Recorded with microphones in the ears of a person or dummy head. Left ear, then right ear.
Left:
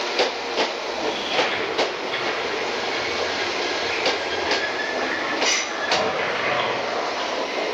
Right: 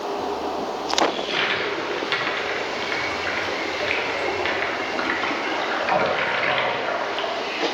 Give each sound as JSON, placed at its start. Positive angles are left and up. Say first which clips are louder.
{"t": 1.1, "sound": "a toilet flushing", "louder": "left 1 dB", "side_deg": -45, "distance_m": 0.9}